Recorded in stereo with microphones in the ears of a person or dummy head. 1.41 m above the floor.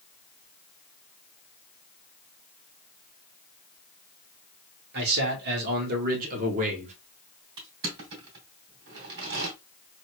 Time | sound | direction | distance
4.9 | a man speaking | 60° right (ahead or behind) | 2 m
7.6 | crushing | 60° right (ahead or behind) | 3 m